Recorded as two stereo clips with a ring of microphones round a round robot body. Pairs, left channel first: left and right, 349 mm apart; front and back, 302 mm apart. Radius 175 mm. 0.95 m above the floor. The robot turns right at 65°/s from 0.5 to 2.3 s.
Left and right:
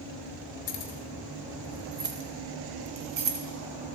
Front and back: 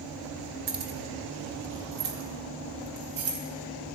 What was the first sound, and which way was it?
Keys jangling, 130° left.